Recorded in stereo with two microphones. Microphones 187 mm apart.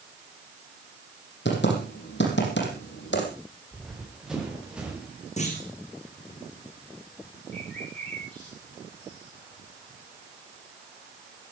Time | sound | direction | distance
1.4 | typing on a keyboard | 75° left (ahead or behind) | 5.5 m
3.7 | running footsteps | centre (ahead or behind) | 6 m
5.4 | a clunk | 40° left (ahead or behind) | 4.5 m
7.5 | a bird | 5° left (ahead or behind) | 7 m